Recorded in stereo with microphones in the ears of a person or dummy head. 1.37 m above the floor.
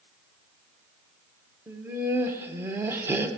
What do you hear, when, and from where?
1.7 s laughter: 10° right (ahead or behind), 0.9 m